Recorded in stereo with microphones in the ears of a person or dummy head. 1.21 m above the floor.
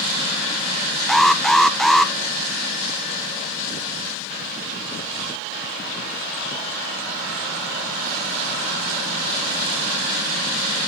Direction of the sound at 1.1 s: Centre (ahead or behind).